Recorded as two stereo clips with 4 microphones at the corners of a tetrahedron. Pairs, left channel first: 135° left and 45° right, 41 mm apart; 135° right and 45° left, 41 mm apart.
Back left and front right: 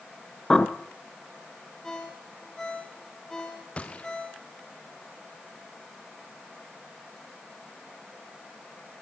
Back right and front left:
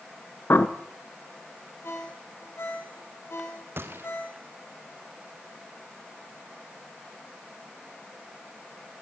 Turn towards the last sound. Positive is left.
turn(degrees=70)